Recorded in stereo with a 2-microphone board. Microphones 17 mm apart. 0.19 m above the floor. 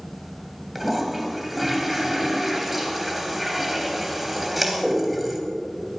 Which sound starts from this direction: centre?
A toilet flushing, at 0.8 s.